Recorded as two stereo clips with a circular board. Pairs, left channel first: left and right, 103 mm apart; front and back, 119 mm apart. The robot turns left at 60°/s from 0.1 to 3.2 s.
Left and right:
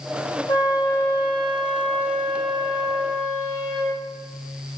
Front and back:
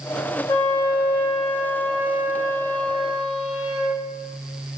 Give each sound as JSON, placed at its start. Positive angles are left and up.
{"t": 0.5, "sound": "a flute", "azimuth_deg": 60, "distance_m": 1.2}